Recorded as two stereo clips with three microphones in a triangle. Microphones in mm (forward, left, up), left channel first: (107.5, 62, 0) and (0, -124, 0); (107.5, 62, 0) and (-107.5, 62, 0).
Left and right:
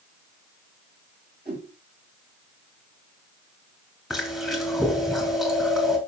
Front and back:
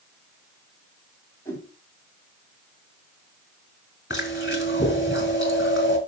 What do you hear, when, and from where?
1.4 s a whoosh: 75° right, 6.5 m
4.1 s chewing: 30° right, 3 m